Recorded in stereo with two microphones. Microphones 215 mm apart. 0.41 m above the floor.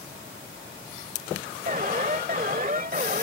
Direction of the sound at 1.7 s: 40° right (ahead or behind).